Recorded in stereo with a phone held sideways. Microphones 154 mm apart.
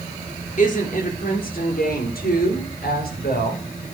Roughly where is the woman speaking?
Left.